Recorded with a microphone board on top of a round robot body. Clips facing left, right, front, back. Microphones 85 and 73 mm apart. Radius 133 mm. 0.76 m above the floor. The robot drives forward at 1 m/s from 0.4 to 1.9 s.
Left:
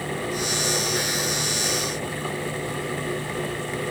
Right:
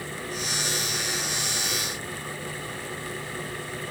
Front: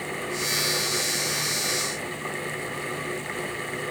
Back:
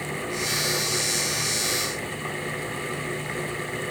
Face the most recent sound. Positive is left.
No sound to turn to.